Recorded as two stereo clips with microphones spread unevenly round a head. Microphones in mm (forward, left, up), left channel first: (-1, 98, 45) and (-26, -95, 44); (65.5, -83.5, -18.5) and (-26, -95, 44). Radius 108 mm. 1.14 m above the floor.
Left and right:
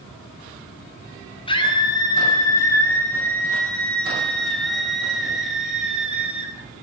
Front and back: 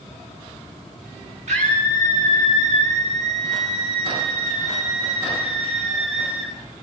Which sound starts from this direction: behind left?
A scream, at 1.5 s.